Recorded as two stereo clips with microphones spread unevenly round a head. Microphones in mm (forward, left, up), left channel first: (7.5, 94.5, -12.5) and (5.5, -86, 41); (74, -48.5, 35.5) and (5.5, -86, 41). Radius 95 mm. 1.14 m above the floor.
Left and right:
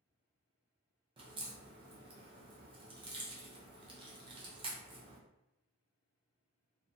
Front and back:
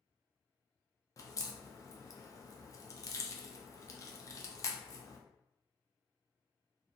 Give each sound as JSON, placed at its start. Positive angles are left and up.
{"t": 1.2, "sound": "a crack", "azimuth_deg": -25, "distance_m": 0.6}